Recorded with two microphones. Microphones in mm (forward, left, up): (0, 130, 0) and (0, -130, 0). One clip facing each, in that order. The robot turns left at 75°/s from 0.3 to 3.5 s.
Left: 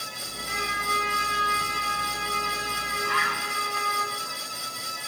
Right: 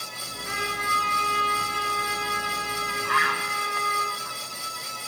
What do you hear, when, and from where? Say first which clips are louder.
0.4 s a trumpet: right 2 dB; 70° right, 6 m; by 4.0 s 60° left, 6 m
3.0 s a bird: right 1 dB; 60° right (ahead or behind), 0.9 m; by 4.4 s 85° right, 0.9 m